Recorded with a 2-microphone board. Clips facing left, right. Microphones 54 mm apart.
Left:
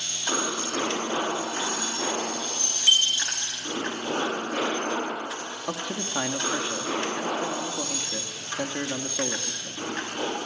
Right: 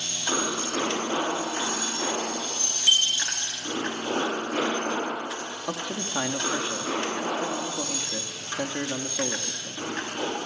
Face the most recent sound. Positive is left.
turn(degrees=5)  # may be behind; listen again after turning